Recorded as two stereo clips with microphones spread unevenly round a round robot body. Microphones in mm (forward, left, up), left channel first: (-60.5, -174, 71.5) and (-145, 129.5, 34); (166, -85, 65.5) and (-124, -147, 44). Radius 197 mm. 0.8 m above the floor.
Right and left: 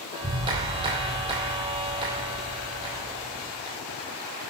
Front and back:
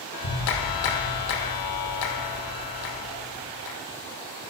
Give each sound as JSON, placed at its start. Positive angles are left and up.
{"t": 0.1, "sound": "a clap", "azimuth_deg": 30, "distance_m": 2.5}